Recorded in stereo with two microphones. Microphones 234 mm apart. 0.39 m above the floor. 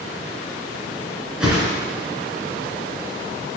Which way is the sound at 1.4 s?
5° right (ahead or behind).